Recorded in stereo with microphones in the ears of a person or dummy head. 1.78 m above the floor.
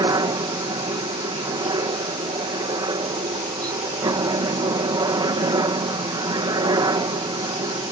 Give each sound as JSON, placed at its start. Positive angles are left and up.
{"t": 0.0, "sound": "a helicopter", "side_deg": -20}